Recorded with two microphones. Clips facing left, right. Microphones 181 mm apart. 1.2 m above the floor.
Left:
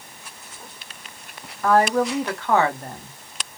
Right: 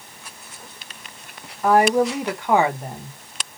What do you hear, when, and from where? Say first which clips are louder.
1.6 s a woman speaking: right 2 dB; 15° right (ahead or behind), 0.7 m